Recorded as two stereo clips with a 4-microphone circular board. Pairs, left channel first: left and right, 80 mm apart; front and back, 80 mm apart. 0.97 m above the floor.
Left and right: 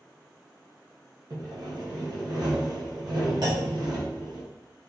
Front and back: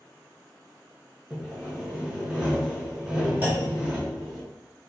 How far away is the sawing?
About 1.3 m.